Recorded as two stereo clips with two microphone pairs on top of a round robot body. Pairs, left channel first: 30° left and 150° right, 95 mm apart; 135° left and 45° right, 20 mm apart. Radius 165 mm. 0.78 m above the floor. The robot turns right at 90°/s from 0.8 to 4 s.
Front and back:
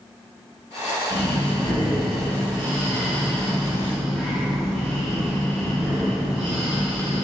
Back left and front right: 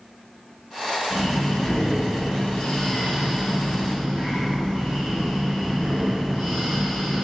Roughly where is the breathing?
Ahead left.